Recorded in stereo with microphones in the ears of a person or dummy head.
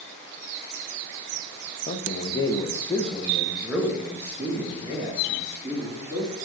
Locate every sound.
1.9 s a man speaking: 40° left (ahead or behind), 0.9 m; by 6.5 s 20° right (ahead or behind), 3.5 m